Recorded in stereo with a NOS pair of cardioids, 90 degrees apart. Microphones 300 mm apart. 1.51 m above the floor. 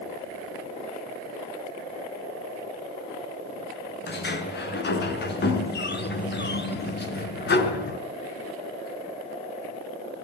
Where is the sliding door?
35° left, 5 m.